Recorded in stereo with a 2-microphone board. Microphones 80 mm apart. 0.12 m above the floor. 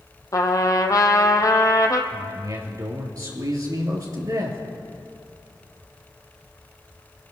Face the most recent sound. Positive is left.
turn(degrees=-50)  # may be behind; listen again after turning